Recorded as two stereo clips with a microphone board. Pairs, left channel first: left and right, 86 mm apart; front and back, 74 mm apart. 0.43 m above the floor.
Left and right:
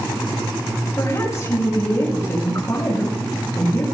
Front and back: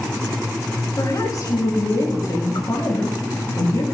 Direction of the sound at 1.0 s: 35° left.